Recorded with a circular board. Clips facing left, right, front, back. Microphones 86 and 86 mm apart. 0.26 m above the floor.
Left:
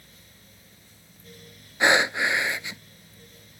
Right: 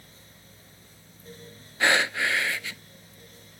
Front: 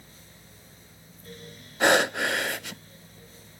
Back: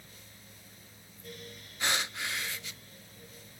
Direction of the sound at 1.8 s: 20° left.